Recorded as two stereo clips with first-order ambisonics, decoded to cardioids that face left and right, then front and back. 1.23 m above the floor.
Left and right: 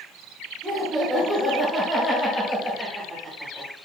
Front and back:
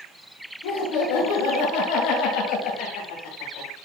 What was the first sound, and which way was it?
Laughter, 15° right.